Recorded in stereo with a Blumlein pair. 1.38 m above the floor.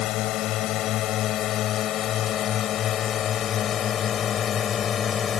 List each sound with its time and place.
0.0 s a drone: 35° left; by 5.4 s 25° left